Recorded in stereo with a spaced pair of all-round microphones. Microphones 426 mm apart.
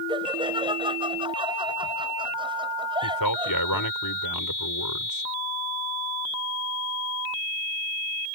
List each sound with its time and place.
0.1 s laughter: 10° right (ahead or behind)
3.0 s a man speaking: 55° left (ahead or behind)